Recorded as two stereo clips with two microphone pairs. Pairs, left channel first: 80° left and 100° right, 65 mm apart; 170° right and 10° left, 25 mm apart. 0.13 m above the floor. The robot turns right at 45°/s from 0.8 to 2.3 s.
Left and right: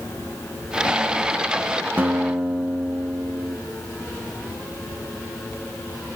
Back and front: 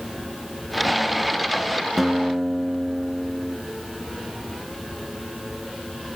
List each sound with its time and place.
2.0 s a guitar: 65° right, 1.5 m; by 3.6 s 55° right, 1.5 m